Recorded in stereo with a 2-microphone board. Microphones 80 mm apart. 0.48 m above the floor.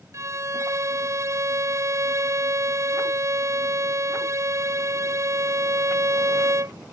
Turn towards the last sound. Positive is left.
turn(degrees=-45)  # may be behind; listen again after turning